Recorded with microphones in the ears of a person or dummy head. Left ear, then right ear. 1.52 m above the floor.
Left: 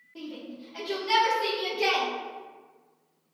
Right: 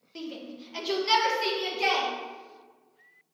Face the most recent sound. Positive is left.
turn(degrees=5)  # may be behind; listen again after turning